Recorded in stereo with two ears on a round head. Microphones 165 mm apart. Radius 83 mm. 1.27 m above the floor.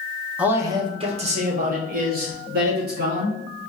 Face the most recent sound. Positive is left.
turn(degrees=-65)  # may be behind; listen again after turning